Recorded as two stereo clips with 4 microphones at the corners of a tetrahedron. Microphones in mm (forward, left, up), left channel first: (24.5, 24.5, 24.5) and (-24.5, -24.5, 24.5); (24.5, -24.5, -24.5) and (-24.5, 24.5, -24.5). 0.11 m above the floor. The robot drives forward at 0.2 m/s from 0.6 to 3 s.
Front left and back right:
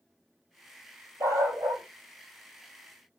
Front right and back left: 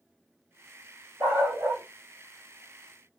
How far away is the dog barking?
About 1.5 m.